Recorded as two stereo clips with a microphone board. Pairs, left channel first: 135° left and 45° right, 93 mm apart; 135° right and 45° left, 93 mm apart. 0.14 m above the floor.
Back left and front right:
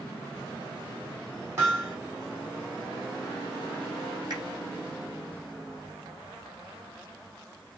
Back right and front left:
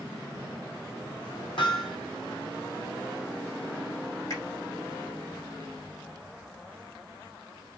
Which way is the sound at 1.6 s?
105° right.